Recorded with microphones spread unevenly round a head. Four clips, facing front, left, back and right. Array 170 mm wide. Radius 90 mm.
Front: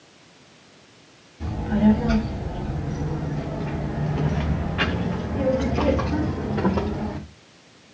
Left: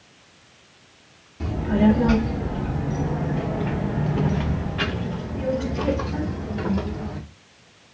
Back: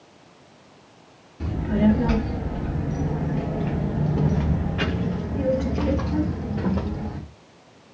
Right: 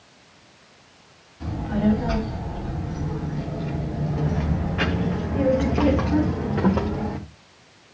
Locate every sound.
1.4 s a child speaking: 130° left, 2 m; by 7.2 s 45° right, 1.9 m